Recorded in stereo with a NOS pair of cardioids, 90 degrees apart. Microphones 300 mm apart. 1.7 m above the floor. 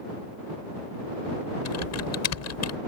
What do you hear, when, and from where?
1.6 s typing on a keyboard: 60° left